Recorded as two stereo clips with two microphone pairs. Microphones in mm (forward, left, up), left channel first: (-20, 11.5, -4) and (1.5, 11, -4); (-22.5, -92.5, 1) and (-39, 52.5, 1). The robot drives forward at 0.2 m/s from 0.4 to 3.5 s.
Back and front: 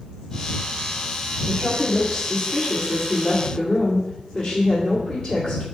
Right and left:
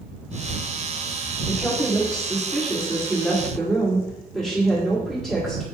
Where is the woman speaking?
160° right, 1.3 m; by 5.6 s 165° right, 1.5 m.